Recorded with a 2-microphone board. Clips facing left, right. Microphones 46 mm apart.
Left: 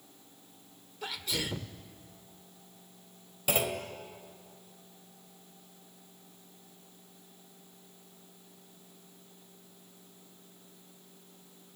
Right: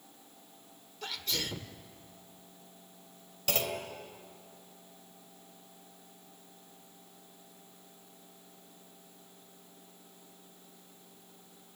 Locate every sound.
1.0 s a sneeze: 10° left (ahead or behind), 1.2 m
3.5 s a clunk: 15° left (ahead or behind), 2 m